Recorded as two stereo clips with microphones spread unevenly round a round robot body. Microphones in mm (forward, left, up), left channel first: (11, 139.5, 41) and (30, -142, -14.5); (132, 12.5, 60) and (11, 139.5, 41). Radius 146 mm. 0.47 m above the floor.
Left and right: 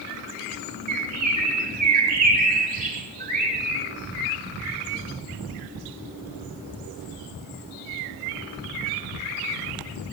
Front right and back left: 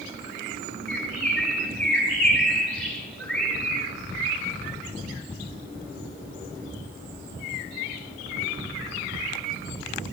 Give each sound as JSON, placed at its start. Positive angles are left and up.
{"t": 0.9, "sound": "a bird", "azimuth_deg": -135, "distance_m": 2.0}